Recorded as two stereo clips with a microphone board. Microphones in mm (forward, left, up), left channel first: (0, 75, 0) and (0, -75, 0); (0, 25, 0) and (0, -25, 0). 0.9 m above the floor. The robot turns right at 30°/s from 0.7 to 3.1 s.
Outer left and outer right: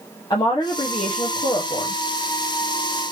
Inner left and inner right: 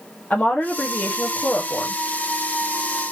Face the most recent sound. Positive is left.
turn(degrees=110)